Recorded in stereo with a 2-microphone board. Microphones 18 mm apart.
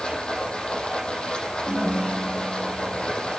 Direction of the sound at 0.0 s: 60° left (ahead or behind).